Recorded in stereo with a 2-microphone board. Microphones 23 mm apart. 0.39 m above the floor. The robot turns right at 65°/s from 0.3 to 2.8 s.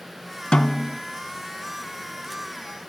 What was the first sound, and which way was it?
A snare drum, 135° left.